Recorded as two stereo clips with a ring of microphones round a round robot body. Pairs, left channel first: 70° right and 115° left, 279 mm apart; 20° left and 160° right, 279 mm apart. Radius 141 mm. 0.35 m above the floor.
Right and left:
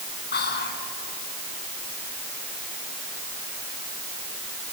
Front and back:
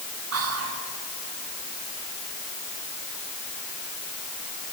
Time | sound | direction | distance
0.3 | whispering | 120° right | 3.5 m